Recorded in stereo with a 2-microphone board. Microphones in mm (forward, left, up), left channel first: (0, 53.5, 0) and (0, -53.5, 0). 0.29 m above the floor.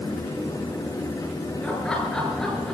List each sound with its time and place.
1.6 s laughter: 10° left (ahead or behind), 6 m; by 2.7 s 5° left (ahead or behind), 6 m